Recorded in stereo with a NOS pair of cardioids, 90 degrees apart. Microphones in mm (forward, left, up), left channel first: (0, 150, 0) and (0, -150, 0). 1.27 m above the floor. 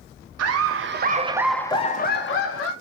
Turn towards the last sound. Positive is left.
turn(degrees=50)